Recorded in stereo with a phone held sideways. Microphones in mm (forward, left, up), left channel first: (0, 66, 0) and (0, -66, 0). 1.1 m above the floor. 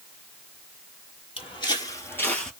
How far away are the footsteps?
About 1.4 m.